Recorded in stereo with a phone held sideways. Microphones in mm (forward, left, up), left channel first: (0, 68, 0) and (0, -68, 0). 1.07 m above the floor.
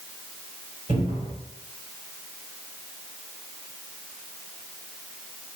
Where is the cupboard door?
45° right (ahead or behind), 2 m.